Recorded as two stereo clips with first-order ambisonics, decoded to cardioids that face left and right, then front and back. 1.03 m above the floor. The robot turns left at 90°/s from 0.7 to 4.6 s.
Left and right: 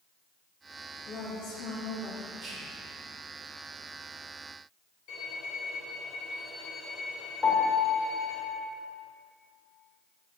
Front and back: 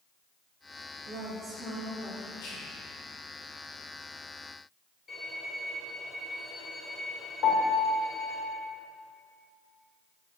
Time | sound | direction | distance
1.1 | a woman speaking | 150° left | 0.9 m
2.4 | whispering | 10° right | 1.4 m
5.1 | a violin | 75° left | 1.3 m
7.4 | a piano | 20° left | 1.0 m